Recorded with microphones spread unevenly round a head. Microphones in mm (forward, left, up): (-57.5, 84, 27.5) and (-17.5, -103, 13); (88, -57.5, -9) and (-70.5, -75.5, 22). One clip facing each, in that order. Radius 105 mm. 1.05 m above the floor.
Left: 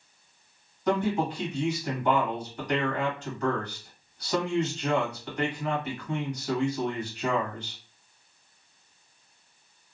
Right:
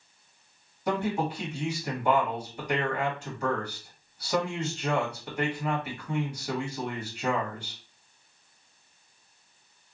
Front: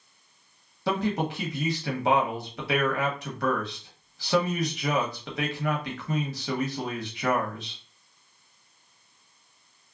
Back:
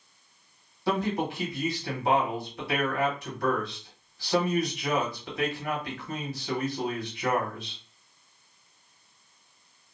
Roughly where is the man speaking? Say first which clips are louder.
Left 2 dB, front 1 dB; ahead.